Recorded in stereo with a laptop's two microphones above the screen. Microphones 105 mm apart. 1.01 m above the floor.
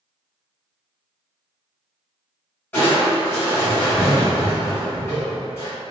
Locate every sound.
2.7 s crushing: 20° left (ahead or behind), 1.3 m